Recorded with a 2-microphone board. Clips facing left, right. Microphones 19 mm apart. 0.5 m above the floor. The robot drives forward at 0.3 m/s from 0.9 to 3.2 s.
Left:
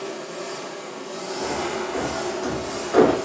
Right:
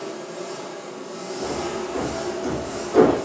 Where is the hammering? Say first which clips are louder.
Left 1 dB; 35° left (ahead or behind), 0.8 m; by 3.2 s 40° left (ahead or behind), 0.8 m.